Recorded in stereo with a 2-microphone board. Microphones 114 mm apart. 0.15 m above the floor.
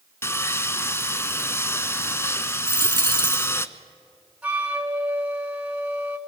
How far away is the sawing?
About 0.6 m.